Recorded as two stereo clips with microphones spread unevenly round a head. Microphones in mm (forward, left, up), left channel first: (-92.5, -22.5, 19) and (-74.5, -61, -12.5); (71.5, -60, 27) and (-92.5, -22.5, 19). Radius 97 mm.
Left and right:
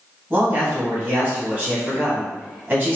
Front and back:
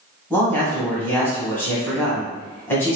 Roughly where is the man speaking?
Right.